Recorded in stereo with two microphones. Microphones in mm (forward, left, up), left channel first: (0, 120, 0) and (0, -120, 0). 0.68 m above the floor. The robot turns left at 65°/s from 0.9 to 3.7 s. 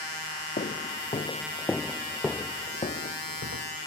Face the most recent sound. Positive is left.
turn(degrees=75)  # may be behind; listen again after turning